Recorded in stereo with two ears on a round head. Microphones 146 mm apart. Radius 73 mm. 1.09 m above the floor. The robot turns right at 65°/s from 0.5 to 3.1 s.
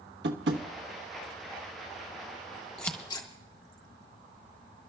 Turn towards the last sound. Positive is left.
turn(degrees=25)  # may be behind; listen again after turning